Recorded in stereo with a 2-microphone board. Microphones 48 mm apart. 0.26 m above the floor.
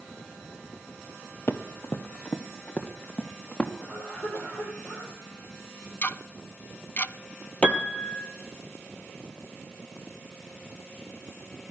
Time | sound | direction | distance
1.5 | running footsteps | 50° left (ahead or behind) | 1.3 m
3.8 | a cough | 45° left (ahead or behind) | 7.5 m
6.0 | ticking | 40° left (ahead or behind) | 0.6 m
7.6 | a piano | 20° left (ahead or behind) | 1.9 m